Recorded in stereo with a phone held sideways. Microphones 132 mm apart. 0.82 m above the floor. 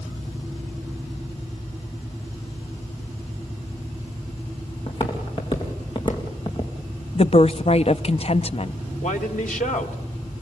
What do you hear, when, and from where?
4.9 s footsteps: 40° left (ahead or behind), 5.5 m; by 6.7 s 35° left (ahead or behind), 3.5 m
7.2 s a woman speaking: 50° left (ahead or behind), 0.5 m
9.0 s a man speaking: 80° left, 2.5 m